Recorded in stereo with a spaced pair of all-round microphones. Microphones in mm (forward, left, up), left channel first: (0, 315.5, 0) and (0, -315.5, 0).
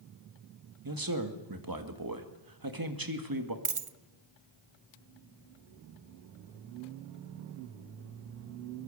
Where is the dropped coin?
55° right (ahead or behind), 0.8 m.